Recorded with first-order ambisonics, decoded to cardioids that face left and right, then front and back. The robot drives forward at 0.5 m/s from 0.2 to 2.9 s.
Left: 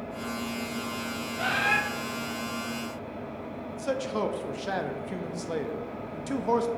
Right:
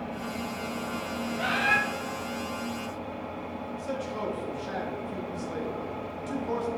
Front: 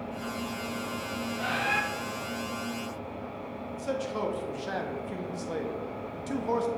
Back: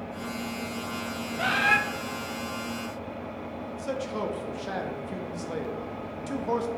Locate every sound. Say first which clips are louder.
0.0 s an engine running: even, even; 100° right, 2 m; by 6.8 s 130° right, 2.5 m
1.4 s a bird: even, back 6 dB; 175° left, 0.8 m
3.7 s a man speaking: left 5 dB, even; 95° left, 0.7 m